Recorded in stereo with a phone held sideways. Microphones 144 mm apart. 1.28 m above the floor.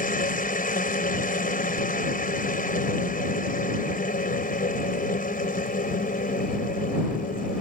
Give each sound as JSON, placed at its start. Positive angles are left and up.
{"t": 0.0, "sound": "a machine running", "side_deg": 80}